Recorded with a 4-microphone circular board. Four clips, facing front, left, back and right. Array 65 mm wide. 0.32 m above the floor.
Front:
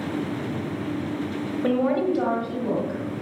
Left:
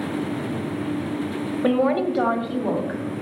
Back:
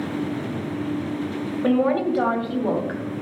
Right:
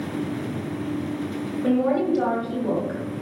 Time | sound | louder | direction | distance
1.6 | a woman speaking | left 1 dB, back 2 dB | 105° left | 1.5 m